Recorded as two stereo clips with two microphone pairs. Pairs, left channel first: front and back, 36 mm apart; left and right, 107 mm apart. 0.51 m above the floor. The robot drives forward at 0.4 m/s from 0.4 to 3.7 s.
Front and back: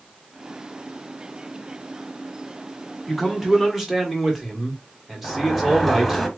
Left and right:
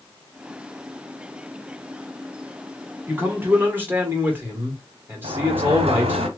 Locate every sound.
3.1 s a man speaking: 65° right, 1.0 m; by 6.2 s 110° right, 1.0 m
5.2 s a sliding door: 90° right, 0.7 m